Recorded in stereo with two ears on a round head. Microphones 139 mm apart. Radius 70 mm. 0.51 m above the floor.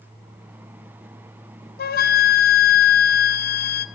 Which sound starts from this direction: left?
A flute, at 1.8 s.